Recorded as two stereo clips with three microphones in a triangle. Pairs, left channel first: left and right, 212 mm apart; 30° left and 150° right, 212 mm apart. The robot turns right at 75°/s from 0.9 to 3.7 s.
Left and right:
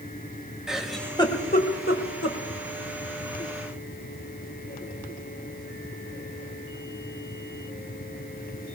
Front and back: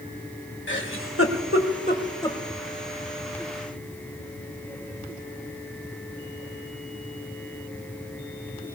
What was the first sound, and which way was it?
A giggle, 5° right.